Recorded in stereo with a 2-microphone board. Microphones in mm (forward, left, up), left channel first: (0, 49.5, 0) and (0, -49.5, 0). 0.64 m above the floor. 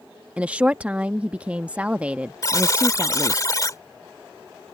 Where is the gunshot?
No gunshot in this recording.